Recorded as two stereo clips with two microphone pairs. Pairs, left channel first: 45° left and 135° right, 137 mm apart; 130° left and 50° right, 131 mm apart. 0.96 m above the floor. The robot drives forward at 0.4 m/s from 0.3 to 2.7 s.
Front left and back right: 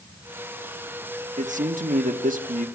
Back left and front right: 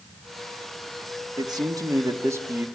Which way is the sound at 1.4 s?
105° right.